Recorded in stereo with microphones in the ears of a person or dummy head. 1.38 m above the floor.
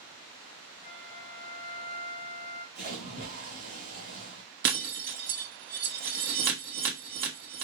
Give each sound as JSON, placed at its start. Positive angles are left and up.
{"t": 0.8, "sound": "a flute", "side_deg": -30, "distance_m": 1.4}
{"t": 2.8, "sound": "a splash", "side_deg": -50, "distance_m": 1.6}
{"t": 4.6, "sound": "breaking glass", "side_deg": -55, "distance_m": 1.0}